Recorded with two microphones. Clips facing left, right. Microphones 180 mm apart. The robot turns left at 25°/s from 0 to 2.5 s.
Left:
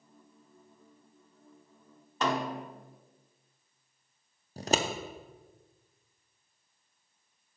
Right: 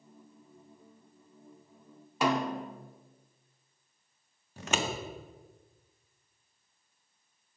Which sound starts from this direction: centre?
A snare drum, at 2.2 s.